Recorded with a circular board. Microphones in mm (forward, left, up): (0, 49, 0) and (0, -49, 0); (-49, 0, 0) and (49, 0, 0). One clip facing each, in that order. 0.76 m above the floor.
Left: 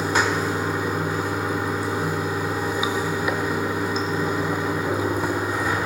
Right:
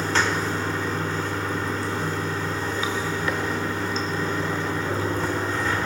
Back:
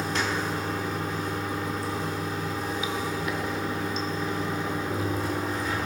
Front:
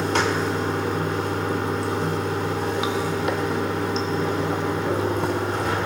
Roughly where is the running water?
Ahead.